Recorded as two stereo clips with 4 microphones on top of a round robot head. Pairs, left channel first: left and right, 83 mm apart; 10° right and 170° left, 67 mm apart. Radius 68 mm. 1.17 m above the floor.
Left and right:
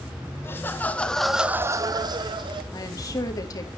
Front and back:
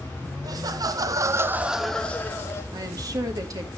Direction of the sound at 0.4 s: 150° left.